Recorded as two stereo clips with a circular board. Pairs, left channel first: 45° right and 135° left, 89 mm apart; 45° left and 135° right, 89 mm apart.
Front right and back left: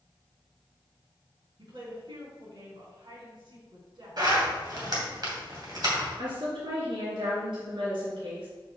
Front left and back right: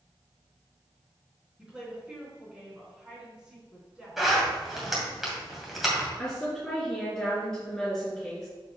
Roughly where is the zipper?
Behind left.